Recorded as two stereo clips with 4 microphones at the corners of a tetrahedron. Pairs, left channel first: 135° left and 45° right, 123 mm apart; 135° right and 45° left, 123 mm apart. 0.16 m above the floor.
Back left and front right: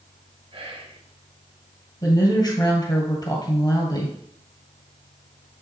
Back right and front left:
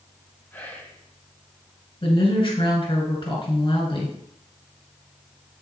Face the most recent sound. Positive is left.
turn(degrees=-175)